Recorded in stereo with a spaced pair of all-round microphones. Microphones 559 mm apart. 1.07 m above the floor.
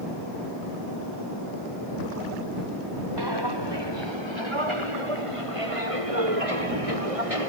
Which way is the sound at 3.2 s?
45° right (ahead or behind).